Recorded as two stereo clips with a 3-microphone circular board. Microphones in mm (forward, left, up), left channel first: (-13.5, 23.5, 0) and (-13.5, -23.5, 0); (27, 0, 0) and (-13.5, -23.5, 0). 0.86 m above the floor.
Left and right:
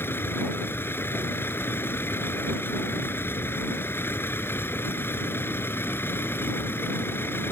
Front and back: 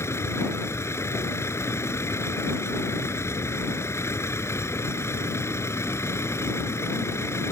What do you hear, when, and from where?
0.0 s a vehicle: 50° left